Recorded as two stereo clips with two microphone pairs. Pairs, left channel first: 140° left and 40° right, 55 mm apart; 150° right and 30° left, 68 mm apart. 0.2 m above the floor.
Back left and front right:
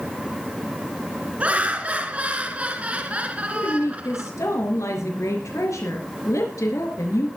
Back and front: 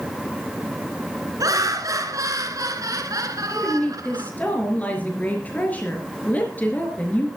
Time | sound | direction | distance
1.4 | laughter | 20° left | 3.5 m
3.5 | a woman speaking | 145° left | 4 m